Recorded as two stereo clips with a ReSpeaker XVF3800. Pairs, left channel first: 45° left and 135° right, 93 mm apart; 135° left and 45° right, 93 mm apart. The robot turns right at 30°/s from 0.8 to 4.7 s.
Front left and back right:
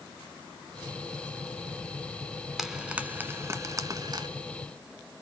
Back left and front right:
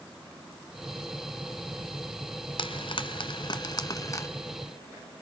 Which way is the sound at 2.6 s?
140° left.